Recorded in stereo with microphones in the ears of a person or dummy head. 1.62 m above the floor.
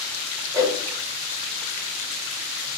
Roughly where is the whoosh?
Centre.